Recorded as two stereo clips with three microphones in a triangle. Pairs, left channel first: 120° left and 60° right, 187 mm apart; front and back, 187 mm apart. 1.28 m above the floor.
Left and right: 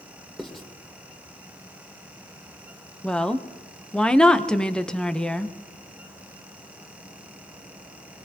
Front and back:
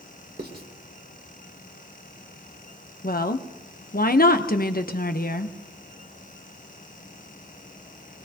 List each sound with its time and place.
0.4 s writing: 150° right, 1.7 m
3.0 s a woman speaking: 35° left, 0.8 m